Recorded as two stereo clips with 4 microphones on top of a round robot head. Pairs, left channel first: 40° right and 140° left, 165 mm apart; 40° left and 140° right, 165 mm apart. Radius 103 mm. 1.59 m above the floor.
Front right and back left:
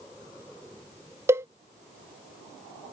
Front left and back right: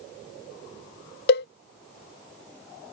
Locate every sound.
1.3 s a cowbell: 65° left